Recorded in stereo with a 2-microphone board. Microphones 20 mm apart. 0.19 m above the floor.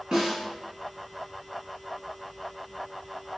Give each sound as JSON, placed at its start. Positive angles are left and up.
{"t": 0.1, "sound": "a snare drum", "side_deg": -55, "distance_m": 1.5}